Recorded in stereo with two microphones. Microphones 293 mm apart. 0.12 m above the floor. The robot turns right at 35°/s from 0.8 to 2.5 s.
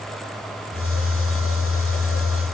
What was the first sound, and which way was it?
Only background noise.